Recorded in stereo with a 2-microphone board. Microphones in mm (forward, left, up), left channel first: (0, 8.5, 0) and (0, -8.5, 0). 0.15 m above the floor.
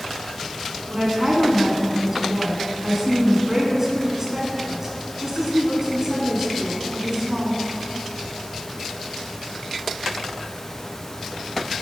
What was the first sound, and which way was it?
A woman speaking, 25° right (ahead or behind).